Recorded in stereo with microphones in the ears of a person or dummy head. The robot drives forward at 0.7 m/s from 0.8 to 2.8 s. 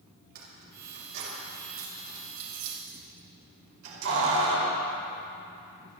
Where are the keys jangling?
50° right (ahead or behind), 4 m; by 4.8 s 70° right (ahead or behind), 3.5 m.